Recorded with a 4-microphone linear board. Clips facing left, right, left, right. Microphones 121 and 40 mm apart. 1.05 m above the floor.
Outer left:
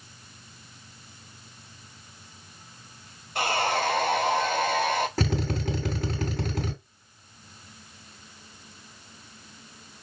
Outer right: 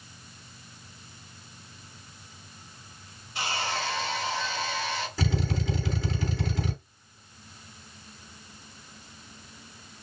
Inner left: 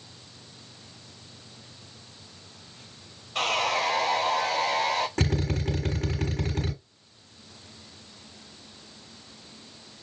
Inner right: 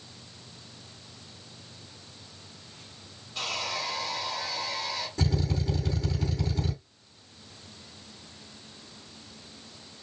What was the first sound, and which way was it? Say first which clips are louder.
Sawing: outer left 6 dB, inner left 7 dB; 55° left (ahead or behind).